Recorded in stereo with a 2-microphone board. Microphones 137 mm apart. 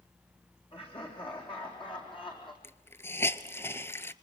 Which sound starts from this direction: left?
Laughter, at 0.7 s.